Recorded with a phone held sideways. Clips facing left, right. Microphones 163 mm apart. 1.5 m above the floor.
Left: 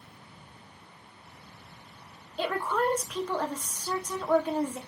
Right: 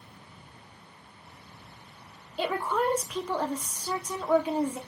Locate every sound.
2.4 s a woman speaking: 5° right (ahead or behind), 0.6 m